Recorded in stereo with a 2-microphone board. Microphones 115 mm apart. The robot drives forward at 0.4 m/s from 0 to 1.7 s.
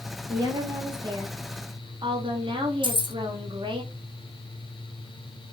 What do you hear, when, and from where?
0.3 s a woman speaking: 30° right (ahead or behind), 1.5 m; by 3.8 s 45° right (ahead or behind), 1.2 m
2.8 s keys jangling: 45° right (ahead or behind), 0.7 m